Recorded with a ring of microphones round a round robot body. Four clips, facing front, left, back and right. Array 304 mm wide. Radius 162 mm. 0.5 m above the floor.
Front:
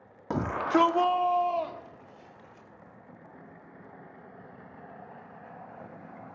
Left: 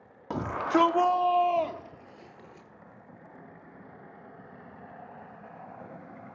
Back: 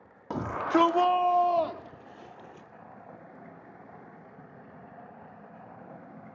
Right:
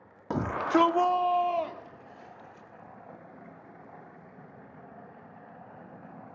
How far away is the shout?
About 1.4 m.